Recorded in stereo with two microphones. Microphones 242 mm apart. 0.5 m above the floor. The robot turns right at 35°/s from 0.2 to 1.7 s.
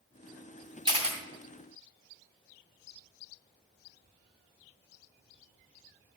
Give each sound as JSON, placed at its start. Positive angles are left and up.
{"t": 0.8, "sound": "a camera shutter", "side_deg": -20, "distance_m": 2.5}